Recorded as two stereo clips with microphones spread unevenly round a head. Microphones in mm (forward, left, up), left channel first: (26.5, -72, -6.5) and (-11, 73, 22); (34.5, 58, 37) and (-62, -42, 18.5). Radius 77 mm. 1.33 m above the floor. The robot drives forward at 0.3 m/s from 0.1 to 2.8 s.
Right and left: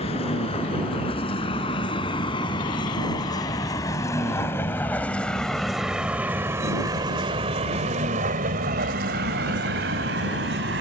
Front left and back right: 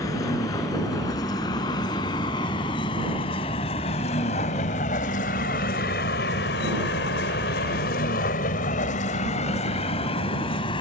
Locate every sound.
0.0 s a vehicle: 20° right; by 10.8 s 100° left